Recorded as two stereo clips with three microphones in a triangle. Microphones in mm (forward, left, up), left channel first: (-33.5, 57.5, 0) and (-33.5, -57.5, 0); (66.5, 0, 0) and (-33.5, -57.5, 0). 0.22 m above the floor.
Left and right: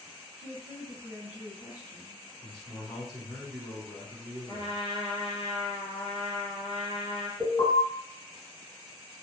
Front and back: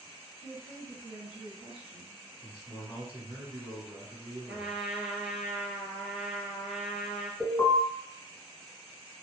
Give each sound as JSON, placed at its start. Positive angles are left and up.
{"t": 0.4, "sound": "a woman speaking", "azimuth_deg": -155, "distance_m": 1.3}
{"t": 2.4, "sound": "a man speaking", "azimuth_deg": 170, "distance_m": 1.4}
{"t": 4.5, "sound": "a trumpet", "azimuth_deg": 125, "distance_m": 0.9}
{"t": 7.4, "sound": "an alarm", "azimuth_deg": 55, "distance_m": 1.4}